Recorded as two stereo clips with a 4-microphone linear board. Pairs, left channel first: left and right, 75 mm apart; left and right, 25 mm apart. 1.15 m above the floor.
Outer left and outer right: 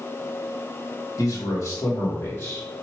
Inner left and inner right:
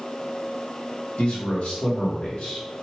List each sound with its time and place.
1.2 s a man speaking: 50° left (ahead or behind), 1.6 m; by 2.7 s 35° left (ahead or behind), 2 m